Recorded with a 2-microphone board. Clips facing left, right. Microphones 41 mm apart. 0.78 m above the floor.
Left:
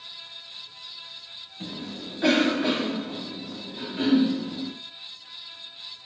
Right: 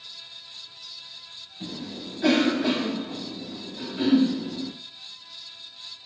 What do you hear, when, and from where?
1.6 s a cough: 35° left (ahead or behind), 1.4 m